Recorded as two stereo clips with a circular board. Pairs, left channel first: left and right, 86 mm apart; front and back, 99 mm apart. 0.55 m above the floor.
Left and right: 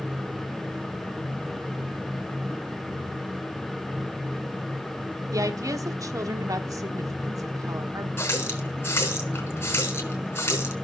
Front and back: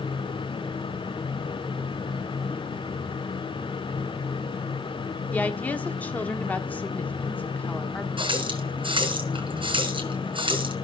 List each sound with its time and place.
5.3 s a woman speaking: 70° right, 1.1 m
8.2 s a running tap: 150° left, 3.5 m